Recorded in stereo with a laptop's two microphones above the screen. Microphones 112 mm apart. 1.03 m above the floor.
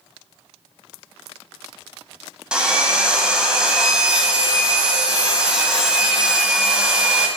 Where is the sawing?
10° right (ahead or behind), 1.6 m.